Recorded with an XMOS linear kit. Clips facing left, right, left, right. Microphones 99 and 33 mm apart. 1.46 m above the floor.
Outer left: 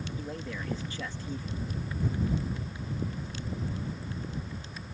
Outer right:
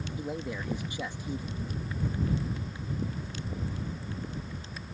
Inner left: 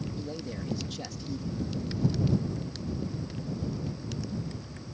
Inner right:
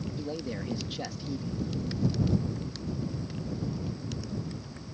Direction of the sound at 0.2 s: 15° right (ahead or behind).